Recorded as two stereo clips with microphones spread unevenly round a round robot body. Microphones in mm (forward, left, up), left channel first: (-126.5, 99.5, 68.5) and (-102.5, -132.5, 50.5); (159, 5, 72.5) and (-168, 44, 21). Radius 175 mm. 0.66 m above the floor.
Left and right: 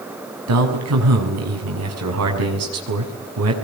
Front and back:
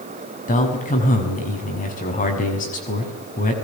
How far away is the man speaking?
About 6.5 m.